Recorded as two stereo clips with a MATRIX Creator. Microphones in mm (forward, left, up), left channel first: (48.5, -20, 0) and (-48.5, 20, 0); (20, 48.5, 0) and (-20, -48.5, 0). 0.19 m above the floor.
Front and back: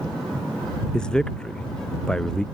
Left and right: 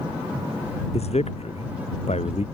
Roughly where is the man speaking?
Ahead left.